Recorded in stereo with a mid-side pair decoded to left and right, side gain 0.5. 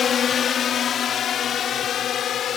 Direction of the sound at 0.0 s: 50° left.